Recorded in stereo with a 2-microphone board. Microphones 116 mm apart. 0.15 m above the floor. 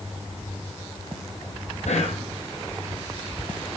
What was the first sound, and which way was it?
Whispering, 75° left (ahead or behind).